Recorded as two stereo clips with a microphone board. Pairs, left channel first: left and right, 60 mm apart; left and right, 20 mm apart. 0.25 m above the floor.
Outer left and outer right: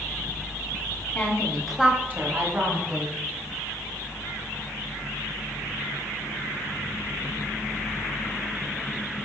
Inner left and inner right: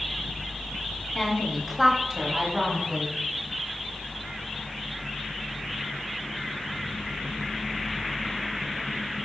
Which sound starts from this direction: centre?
A woman speaking, at 1.1 s.